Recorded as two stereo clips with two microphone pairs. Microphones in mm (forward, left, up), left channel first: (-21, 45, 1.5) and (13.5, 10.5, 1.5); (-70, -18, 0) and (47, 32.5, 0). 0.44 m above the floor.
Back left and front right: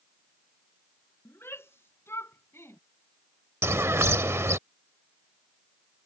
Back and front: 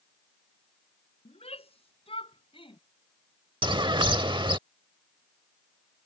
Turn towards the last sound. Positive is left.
turn(degrees=-25)